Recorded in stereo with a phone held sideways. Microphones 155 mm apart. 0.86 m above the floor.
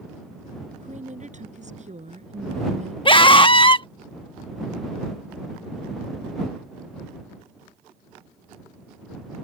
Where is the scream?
35° left (ahead or behind).